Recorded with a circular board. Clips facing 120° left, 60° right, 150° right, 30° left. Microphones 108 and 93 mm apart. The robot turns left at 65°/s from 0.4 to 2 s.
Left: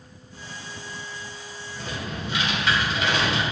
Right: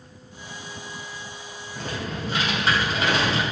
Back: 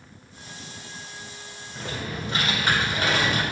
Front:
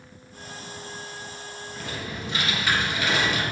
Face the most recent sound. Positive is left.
turn(degrees=-105)